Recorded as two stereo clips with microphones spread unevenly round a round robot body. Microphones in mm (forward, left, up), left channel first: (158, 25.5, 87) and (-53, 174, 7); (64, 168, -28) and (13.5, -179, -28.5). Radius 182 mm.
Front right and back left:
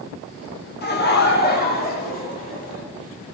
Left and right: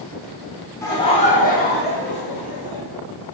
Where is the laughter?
10° left, 0.8 m; by 2.8 s 30° left, 1.9 m.